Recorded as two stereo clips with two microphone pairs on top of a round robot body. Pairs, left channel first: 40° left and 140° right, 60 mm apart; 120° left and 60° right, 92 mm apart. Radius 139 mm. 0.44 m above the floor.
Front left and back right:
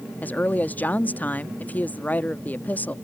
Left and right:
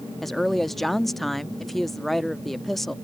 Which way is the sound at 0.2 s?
25° left.